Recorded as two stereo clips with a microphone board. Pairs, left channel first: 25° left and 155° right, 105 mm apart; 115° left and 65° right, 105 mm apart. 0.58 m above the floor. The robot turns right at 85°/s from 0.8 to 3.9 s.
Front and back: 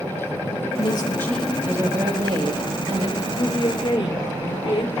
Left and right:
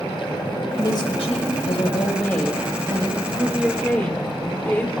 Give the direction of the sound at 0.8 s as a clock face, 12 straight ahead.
10 o'clock.